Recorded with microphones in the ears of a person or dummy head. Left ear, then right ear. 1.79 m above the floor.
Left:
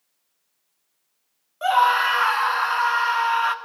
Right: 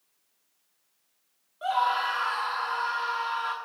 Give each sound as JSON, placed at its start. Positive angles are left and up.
{"t": 1.6, "sound": "a scream", "side_deg": 35, "distance_m": 0.7}